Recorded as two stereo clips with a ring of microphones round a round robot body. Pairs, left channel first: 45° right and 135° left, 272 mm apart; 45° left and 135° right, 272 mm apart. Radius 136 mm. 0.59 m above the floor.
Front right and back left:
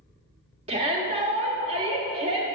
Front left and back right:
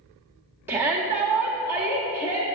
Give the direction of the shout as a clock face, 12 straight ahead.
7 o'clock.